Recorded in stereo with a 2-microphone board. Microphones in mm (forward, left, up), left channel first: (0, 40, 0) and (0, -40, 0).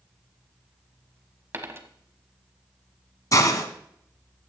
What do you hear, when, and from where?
1.5 s a dropped coin: 30° right (ahead or behind), 1.1 m
3.3 s a hiss: 45° left (ahead or behind), 1.2 m